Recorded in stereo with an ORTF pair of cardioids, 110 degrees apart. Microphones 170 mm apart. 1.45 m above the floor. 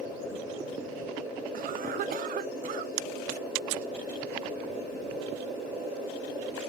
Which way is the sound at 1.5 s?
60° right.